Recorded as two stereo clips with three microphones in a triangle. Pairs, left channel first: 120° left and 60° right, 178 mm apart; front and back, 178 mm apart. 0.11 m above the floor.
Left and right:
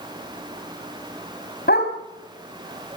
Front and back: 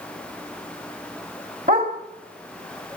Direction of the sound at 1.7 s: 145° left.